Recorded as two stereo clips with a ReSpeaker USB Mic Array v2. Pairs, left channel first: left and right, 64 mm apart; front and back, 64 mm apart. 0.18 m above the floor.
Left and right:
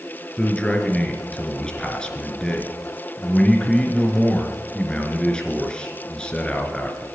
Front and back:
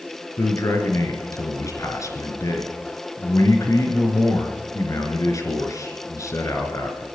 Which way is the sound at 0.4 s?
15° left.